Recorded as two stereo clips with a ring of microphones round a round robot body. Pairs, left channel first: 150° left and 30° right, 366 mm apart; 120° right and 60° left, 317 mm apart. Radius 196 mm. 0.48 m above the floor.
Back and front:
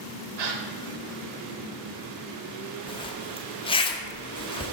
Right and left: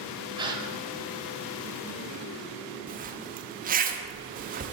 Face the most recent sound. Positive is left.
turn(degrees=90)